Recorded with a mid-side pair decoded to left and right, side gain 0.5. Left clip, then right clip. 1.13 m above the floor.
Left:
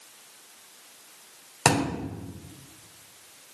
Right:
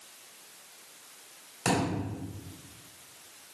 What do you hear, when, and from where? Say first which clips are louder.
1.6 s a thud: left 5 dB; 65° left, 1.9 m